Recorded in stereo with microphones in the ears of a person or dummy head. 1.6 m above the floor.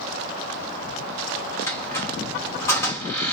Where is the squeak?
15° left (ahead or behind), 1.3 m.